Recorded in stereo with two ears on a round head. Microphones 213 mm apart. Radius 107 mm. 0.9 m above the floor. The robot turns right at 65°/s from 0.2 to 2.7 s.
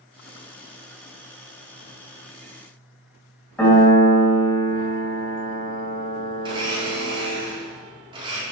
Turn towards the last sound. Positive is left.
turn(degrees=-20)  # may be behind; listen again after turning